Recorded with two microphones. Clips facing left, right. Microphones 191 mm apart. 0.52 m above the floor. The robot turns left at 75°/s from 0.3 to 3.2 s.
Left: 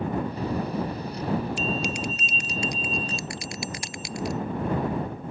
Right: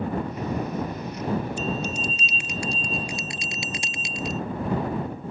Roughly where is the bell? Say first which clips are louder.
Even; left.